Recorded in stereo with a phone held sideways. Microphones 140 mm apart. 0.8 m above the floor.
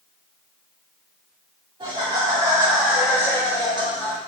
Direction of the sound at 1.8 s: 45° right (ahead or behind).